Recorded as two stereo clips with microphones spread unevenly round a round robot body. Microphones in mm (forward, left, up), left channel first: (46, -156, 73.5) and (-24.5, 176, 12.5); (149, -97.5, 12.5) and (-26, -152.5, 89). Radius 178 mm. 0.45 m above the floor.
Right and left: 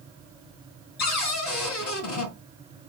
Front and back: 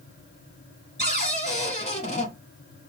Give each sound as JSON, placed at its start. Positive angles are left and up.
{"t": 1.0, "sound": "a cupboard door", "azimuth_deg": -30, "distance_m": 1.5}